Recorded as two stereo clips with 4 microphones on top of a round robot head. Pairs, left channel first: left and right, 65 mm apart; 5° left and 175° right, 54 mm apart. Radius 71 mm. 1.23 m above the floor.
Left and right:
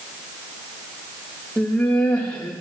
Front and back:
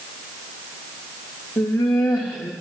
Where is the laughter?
25° left, 2.5 m.